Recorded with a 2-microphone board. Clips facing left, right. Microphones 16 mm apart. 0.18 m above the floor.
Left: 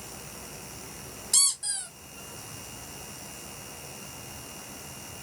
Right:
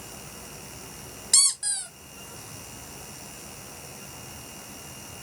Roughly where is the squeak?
Right.